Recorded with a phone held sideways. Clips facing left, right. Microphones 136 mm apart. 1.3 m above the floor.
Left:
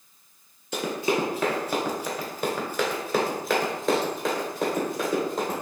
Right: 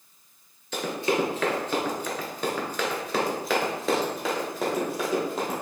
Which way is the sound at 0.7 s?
15° left (ahead or behind).